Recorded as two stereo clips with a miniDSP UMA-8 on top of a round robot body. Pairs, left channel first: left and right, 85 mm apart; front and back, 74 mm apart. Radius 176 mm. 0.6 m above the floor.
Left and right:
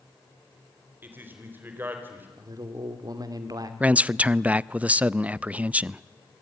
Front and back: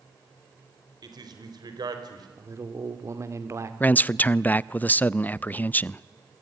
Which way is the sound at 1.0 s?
160° right.